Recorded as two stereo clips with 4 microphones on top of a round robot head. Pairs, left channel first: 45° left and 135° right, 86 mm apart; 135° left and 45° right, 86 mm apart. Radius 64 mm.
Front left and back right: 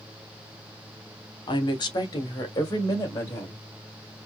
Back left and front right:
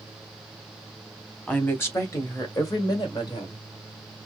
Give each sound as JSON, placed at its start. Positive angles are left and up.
{"t": 1.5, "sound": "a woman speaking", "azimuth_deg": 65, "distance_m": 1.2}